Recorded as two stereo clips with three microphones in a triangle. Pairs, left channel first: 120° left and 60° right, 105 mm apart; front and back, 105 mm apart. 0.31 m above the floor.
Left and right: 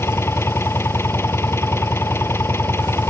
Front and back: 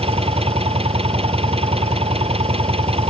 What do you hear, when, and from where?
0.0 s an engine running: 175° right